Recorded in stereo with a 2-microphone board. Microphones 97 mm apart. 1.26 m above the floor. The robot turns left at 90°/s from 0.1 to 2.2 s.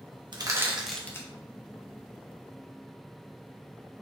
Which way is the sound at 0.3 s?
50° right (ahead or behind).